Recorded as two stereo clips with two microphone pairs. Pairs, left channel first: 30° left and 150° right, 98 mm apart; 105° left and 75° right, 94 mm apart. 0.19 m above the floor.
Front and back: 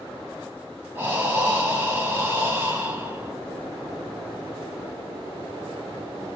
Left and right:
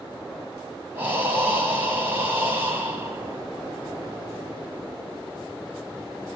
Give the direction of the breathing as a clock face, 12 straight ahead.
4 o'clock.